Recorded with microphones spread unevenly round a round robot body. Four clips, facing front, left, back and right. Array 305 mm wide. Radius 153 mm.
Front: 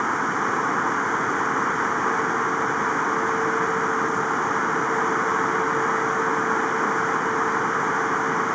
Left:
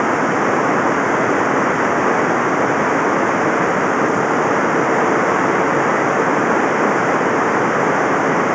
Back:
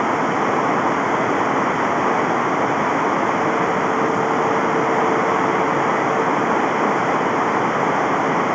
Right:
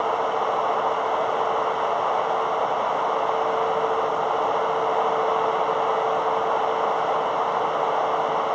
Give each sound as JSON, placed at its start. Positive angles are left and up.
{"t": 0.0, "sound": "running water", "azimuth_deg": 110}